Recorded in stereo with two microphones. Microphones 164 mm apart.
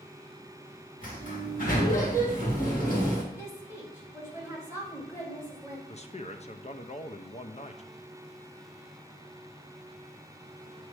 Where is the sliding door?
50° left (ahead or behind), 2 m.